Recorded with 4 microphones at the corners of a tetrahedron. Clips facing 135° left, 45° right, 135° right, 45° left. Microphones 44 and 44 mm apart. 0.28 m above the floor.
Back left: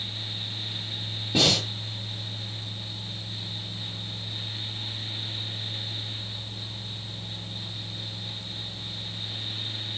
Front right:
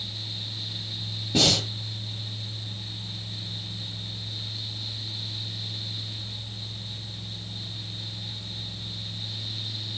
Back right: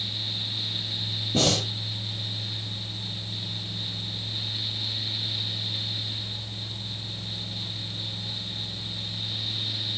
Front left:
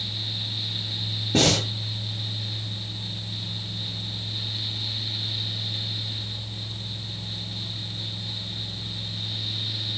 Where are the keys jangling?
I don't hear keys jangling.